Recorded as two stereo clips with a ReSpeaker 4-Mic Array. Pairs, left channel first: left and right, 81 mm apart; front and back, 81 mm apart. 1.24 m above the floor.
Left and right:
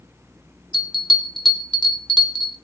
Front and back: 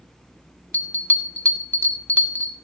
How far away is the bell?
About 1.7 m.